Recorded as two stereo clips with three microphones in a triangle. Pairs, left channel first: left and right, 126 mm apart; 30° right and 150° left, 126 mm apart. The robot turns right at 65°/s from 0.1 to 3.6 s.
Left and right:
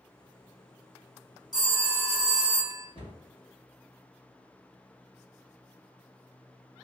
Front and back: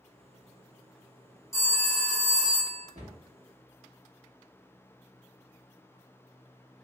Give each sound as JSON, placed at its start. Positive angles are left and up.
{"t": 1.5, "sound": "a phone ringing", "azimuth_deg": 35, "distance_m": 0.9}
{"t": 3.0, "sound": "a cupboard door", "azimuth_deg": 130, "distance_m": 1.2}